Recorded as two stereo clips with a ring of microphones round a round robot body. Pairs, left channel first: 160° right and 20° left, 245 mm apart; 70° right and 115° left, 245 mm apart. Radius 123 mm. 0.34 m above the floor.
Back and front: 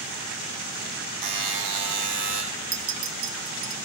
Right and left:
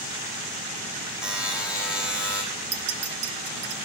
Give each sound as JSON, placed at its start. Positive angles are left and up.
{"t": 1.2, "sound": "a buzzer", "azimuth_deg": 25, "distance_m": 3.0}
{"t": 2.7, "sound": "a clink", "azimuth_deg": 55, "distance_m": 1.2}